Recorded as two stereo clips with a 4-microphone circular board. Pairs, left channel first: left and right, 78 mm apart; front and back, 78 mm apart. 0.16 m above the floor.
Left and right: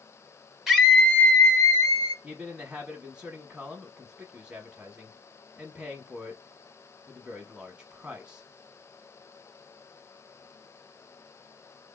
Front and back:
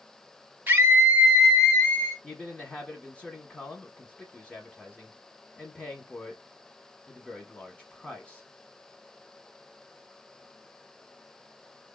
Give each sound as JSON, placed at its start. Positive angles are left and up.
{"t": 0.7, "sound": "a scream", "azimuth_deg": -170, "distance_m": 1.2}
{"t": 2.2, "sound": "a man speaking", "azimuth_deg": -40, "distance_m": 1.0}